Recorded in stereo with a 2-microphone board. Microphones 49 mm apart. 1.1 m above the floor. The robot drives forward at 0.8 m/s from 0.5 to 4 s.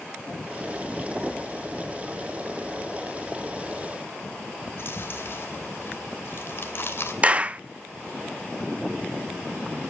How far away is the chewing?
About 2.5 m.